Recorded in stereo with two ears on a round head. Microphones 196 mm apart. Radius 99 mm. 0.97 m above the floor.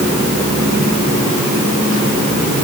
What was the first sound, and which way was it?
Only background noise.